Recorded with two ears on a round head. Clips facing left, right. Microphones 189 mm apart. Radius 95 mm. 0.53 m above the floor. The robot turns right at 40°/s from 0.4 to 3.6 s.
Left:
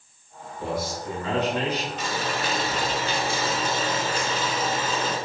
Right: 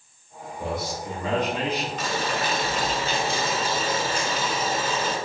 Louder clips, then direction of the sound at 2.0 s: Right 1 dB; 75° right.